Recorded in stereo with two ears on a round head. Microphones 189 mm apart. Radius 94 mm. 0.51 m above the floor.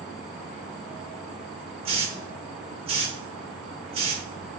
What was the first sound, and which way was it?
A hiss, 25° right (ahead or behind).